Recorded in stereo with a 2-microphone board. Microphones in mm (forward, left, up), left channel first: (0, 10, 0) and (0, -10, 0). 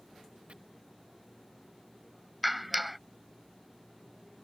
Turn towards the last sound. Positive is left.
turn(degrees=-5)  # may be behind; listen again after turning